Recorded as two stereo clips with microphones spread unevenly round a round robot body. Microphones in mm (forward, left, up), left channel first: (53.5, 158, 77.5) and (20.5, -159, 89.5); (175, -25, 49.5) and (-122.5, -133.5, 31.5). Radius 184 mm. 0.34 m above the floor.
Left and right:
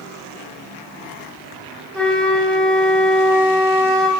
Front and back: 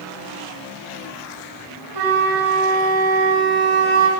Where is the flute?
170° left, 2 m.